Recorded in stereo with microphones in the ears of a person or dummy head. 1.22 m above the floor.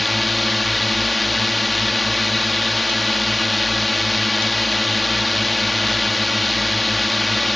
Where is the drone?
Centre (ahead or behind).